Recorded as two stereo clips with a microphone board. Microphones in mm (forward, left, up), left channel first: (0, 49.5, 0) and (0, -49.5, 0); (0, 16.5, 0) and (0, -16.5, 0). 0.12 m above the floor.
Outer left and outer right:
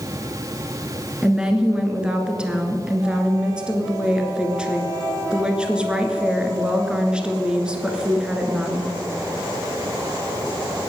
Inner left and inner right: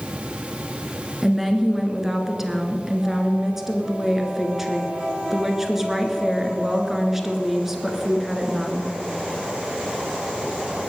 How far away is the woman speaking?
About 1.9 m.